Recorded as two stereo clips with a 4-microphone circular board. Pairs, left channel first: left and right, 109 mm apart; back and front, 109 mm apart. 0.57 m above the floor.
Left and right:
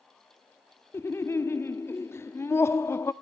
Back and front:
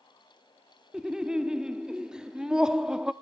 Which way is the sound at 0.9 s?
75° left.